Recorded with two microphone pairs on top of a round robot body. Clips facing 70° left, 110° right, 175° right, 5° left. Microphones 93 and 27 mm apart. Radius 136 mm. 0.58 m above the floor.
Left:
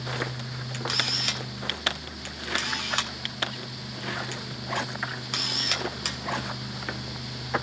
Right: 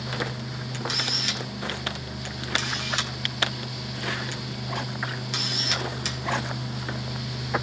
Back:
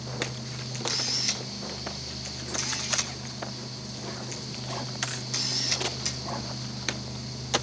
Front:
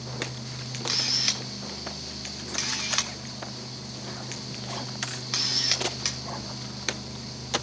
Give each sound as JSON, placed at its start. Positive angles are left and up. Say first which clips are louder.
{"t": 0.7, "sound": "a camera shutter", "louder": "even, front 3 dB", "azimuth_deg": 40, "distance_m": 3.0}